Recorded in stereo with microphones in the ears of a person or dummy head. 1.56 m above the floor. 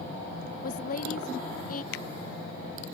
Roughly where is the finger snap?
Left.